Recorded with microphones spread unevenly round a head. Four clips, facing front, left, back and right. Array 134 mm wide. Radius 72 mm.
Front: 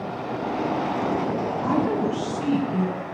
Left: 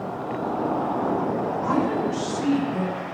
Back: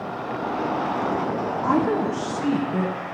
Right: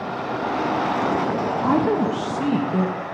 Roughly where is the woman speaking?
Right.